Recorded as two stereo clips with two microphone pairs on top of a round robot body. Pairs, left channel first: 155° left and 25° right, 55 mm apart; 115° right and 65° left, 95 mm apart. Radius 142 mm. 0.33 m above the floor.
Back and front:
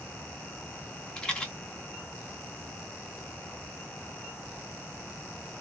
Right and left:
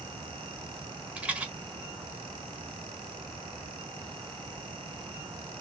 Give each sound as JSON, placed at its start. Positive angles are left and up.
{"t": 1.2, "sound": "a rattle", "azimuth_deg": 115, "distance_m": 1.4}